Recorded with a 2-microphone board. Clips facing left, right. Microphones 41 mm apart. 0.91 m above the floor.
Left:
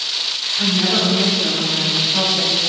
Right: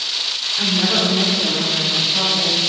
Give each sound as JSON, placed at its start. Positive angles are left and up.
{"t": 0.6, "sound": "a woman speaking", "side_deg": -30, "distance_m": 2.0}